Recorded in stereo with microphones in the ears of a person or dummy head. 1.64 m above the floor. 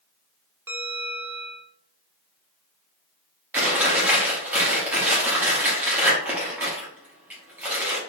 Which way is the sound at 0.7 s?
10° right (ahead or behind).